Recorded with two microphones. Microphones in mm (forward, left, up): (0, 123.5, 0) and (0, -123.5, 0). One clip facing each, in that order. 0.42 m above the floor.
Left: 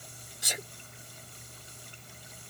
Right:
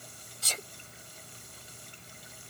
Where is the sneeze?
15° left (ahead or behind).